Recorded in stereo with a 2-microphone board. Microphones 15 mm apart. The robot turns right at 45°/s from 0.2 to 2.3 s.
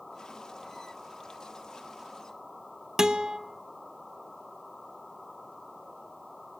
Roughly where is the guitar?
Right.